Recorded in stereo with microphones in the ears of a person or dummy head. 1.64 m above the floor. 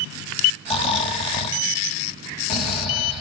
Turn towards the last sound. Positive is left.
turn(degrees=40)  # may be behind; listen again after turning